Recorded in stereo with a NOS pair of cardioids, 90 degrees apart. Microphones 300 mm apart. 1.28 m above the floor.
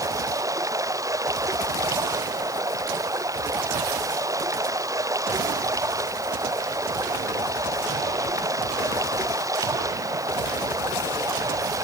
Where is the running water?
10° right.